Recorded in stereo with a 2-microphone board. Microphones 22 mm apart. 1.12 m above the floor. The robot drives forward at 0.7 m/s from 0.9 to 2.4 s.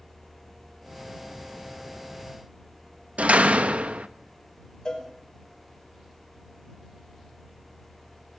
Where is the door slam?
80° right, 1.2 m.